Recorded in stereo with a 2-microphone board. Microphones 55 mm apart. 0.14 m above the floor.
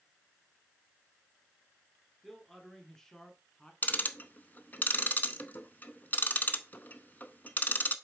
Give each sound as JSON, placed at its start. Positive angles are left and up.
{"t": 2.2, "sound": "a man speaking", "side_deg": 5, "distance_m": 2.0}
{"t": 3.8, "sound": "ticking", "side_deg": 35, "distance_m": 0.7}